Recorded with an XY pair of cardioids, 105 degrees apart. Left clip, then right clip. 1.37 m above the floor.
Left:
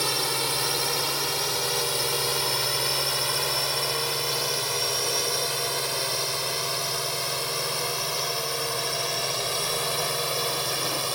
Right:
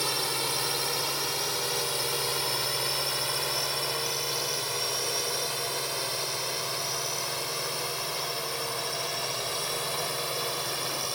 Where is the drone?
20° left; by 11.2 s 30° left.